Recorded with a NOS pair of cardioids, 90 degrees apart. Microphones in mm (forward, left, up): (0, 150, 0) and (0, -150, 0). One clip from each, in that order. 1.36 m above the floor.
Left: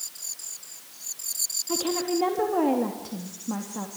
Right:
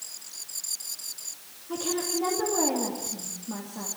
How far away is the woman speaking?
About 3 m.